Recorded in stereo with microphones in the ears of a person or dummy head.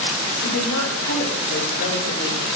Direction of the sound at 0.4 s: 85° left.